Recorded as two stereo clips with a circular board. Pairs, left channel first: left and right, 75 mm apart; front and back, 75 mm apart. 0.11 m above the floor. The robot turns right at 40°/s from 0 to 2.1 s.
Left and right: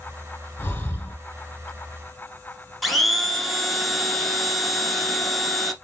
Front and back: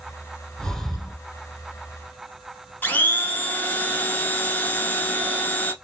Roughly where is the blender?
Ahead.